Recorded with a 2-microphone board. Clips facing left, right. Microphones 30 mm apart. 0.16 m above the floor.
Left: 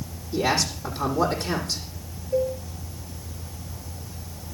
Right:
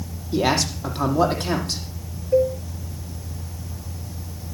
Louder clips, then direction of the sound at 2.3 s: Right 6 dB; 55° right (ahead or behind).